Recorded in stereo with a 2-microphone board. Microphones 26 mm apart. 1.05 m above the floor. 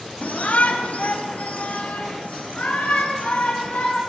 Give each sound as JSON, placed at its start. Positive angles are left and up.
{"t": 0.2, "sound": "a shout", "side_deg": 85, "distance_m": 1.6}